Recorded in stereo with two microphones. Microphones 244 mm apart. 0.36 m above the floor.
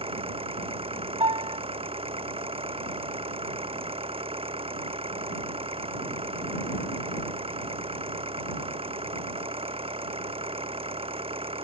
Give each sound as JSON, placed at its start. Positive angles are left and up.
{"t": 0.0, "sound": "an engine running", "side_deg": -25}
{"t": 1.2, "sound": "a piano", "side_deg": -25}